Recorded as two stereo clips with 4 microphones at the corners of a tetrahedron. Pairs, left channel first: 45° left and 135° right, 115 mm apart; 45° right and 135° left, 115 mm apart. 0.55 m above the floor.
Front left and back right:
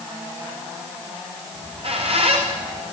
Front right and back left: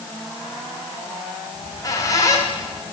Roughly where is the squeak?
Right.